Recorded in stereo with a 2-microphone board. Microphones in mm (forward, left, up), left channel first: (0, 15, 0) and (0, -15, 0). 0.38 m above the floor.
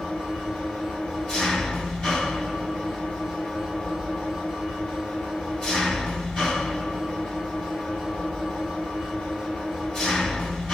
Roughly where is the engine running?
Left.